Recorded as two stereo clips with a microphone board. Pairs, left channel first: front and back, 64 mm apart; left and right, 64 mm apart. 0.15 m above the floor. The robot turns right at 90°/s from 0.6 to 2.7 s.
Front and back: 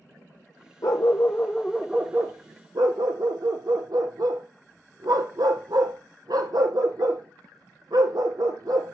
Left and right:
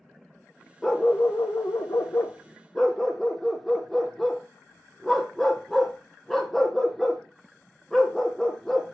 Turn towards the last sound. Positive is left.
turn(degrees=175)